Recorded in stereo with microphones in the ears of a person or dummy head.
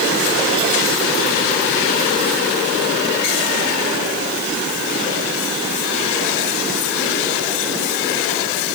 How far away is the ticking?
No ticking in this recording.